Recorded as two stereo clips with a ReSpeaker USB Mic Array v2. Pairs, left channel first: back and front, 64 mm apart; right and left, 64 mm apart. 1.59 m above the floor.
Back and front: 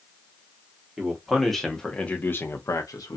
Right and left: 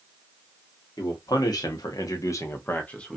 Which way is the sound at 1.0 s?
85° right.